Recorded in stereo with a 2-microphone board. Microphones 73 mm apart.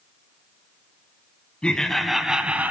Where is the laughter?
15° left (ahead or behind), 1.1 m; by 2.7 s 20° right (ahead or behind), 1.1 m.